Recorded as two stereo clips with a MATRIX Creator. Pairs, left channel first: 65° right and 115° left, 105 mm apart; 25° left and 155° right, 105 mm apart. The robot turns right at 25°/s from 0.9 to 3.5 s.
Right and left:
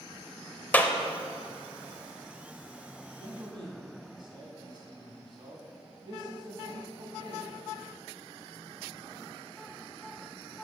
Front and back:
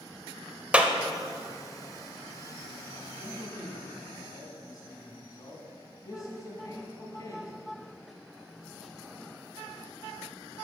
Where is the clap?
105° right, 0.7 m.